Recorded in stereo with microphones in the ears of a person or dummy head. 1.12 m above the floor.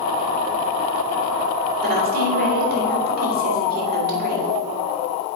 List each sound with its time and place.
1.8 s a woman speaking: 50° right (ahead or behind), 2.5 m